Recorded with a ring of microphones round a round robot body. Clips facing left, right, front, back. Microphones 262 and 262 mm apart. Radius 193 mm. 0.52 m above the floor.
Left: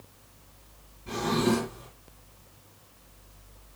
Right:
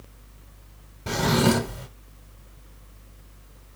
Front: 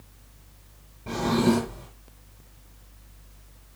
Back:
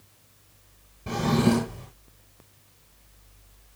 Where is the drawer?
100° right, 1.3 m.